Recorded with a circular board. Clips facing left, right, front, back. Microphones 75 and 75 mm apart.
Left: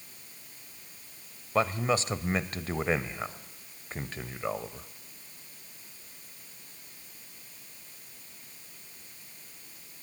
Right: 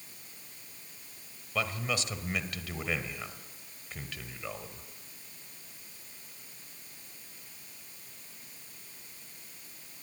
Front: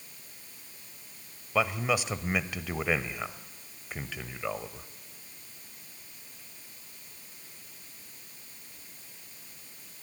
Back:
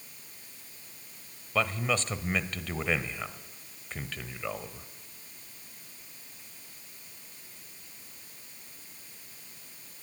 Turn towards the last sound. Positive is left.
turn(degrees=75)